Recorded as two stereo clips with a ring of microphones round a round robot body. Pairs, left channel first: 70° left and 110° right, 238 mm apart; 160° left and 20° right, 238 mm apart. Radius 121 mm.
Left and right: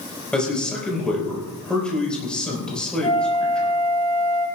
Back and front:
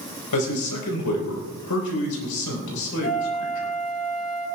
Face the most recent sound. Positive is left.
turn(degrees=135)